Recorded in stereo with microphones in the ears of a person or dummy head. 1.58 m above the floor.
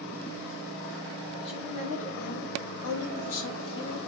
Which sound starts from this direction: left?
A woman speaking, at 1.4 s.